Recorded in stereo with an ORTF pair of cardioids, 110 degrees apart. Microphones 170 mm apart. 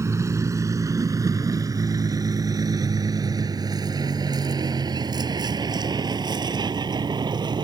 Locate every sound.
0.0 s a vehicle: 15° right; by 7.7 s 25° right